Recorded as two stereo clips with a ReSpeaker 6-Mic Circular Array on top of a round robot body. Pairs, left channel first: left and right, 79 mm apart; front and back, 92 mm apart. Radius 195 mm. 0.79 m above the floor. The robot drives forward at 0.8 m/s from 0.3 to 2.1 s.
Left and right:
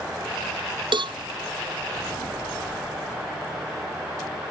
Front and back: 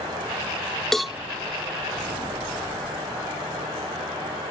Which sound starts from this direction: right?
A cowbell, at 0.9 s.